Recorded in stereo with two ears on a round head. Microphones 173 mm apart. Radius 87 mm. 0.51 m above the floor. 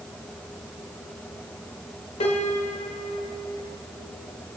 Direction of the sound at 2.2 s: 35° left (ahead or behind).